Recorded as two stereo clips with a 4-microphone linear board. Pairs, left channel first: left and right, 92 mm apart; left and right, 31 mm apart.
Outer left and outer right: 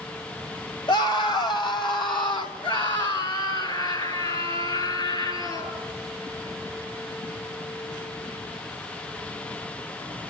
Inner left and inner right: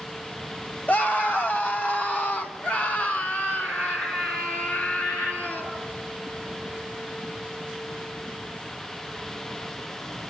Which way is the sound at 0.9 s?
55° left (ahead or behind).